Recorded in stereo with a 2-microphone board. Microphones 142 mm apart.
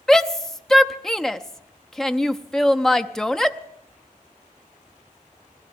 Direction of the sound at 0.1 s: 5° left (ahead or behind).